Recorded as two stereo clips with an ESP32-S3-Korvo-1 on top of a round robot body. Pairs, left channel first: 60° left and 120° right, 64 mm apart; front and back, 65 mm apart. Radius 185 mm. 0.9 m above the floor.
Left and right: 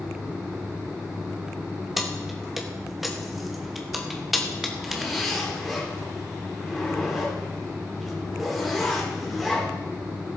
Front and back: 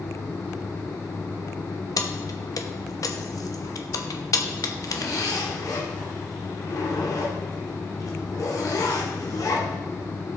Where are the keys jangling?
30° right, 1.0 m.